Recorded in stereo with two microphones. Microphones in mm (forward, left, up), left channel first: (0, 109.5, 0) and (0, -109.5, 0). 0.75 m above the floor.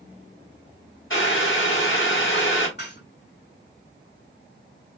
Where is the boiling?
65° left (ahead or behind), 2.5 m.